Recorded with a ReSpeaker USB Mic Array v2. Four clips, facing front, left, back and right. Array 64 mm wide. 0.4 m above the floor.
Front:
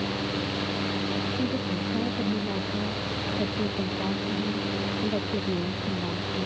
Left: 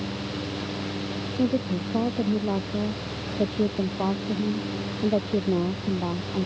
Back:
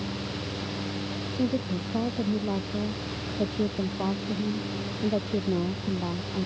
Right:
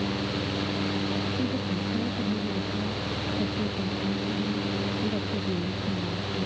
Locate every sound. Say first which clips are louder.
1.4 s a woman speaking: left 4 dB, even; 105° left